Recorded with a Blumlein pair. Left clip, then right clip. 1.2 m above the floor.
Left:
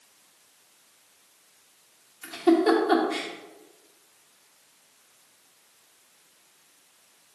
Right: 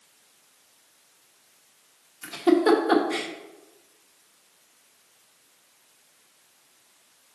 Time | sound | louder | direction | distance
2.2 | a giggle | right 1 dB | 15° right | 1.0 m